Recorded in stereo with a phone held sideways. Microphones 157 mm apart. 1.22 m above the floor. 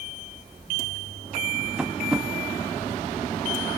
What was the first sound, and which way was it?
Tapping, 5° right (ahead or behind).